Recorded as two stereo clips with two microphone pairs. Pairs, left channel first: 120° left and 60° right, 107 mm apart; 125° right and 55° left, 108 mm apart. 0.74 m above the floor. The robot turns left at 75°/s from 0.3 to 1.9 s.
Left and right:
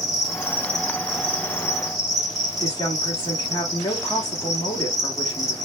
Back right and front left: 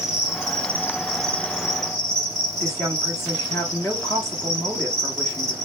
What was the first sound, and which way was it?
An insect, 30° left.